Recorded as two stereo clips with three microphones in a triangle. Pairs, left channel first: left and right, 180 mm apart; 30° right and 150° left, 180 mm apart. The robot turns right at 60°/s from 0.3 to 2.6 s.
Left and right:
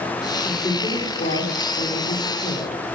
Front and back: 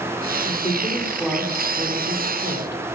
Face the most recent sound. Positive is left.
turn(degrees=135)